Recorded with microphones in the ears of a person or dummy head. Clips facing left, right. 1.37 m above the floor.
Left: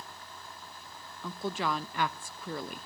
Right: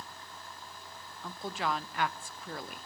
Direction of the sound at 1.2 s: 80° left.